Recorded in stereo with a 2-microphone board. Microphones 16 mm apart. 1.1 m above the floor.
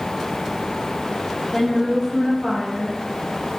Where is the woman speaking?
10° left (ahead or behind), 2 m; by 3.6 s 40° right (ahead or behind), 2.5 m.